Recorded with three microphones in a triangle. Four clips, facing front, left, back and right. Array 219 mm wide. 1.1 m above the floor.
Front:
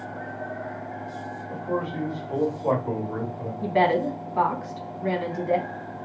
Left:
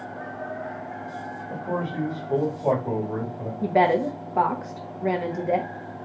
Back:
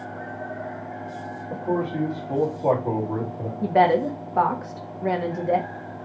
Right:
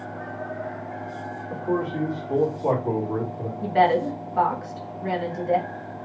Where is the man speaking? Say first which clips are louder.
Right 3 dB, back 3 dB; 165° left, 2 m.